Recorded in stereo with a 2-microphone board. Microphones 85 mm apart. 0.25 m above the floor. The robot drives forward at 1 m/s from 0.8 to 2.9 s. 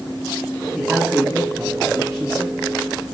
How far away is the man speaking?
About 1.1 m.